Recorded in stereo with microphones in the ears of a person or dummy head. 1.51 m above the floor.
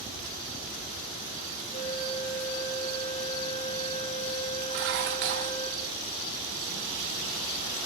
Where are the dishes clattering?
60° right (ahead or behind), 1.3 m.